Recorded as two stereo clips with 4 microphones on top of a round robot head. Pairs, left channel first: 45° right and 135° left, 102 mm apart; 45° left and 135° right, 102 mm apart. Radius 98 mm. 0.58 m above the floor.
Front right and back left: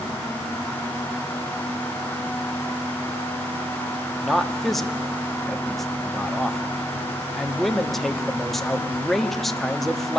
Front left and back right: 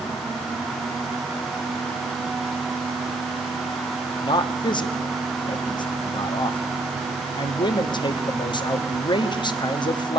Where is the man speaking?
45° left, 1.2 m.